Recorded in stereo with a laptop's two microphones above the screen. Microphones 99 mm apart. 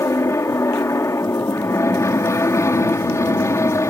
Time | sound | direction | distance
0.0 | an aircraft | 30° left (ahead or behind) | ?